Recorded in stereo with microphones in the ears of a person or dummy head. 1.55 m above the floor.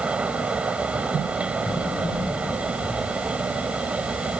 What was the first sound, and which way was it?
A fan, 5° right (ahead or behind).